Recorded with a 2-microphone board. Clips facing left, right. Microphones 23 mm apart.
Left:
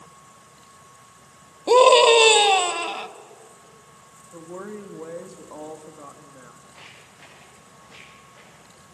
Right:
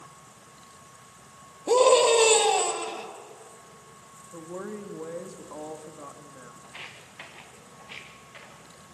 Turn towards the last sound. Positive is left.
turn(degrees=-85)